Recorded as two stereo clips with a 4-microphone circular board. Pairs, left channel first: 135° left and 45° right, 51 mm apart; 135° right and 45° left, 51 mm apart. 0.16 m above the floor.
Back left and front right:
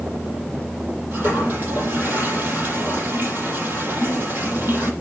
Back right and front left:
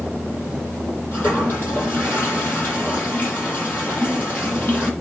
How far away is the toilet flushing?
About 5.5 m.